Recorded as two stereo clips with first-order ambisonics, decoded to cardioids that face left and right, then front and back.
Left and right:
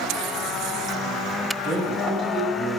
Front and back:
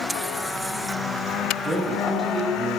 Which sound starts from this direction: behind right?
A man speaking, at 1.6 s.